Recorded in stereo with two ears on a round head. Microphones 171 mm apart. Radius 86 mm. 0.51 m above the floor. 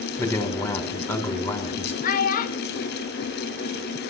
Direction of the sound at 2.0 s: 45° left (ahead or behind).